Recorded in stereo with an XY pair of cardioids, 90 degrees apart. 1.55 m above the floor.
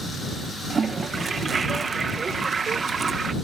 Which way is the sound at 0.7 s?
40° right.